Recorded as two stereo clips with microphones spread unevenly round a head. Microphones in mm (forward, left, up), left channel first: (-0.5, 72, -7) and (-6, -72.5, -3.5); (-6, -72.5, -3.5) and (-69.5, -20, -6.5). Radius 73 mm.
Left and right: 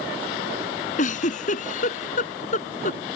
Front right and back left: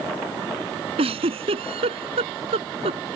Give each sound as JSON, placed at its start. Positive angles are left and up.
{"t": 1.0, "sound": "a giggle", "azimuth_deg": 125}